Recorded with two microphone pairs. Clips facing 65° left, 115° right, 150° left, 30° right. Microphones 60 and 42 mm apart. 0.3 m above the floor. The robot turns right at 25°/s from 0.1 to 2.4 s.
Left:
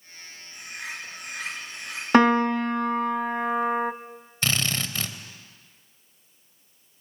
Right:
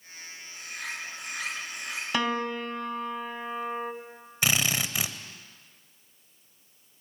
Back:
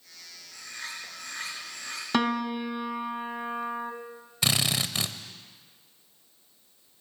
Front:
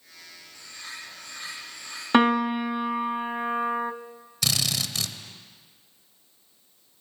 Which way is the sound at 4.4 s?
175° left.